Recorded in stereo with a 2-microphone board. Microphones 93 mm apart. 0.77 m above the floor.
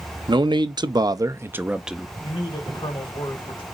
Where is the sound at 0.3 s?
55° right (ahead or behind), 0.8 m; by 2.1 s centre (ahead or behind), 0.6 m.